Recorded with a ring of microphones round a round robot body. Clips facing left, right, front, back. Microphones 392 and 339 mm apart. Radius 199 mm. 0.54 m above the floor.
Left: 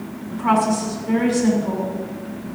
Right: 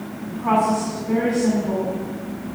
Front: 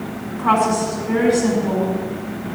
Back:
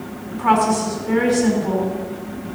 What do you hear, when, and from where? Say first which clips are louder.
0.3 s a woman speaking: left 1 dB, back 1 dB; 145° left, 5.5 m